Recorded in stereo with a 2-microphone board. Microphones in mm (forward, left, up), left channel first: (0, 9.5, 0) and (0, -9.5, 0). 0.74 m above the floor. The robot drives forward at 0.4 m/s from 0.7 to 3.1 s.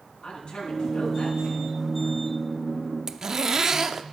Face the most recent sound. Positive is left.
turn(degrees=-35)  # may be behind; listen again after turning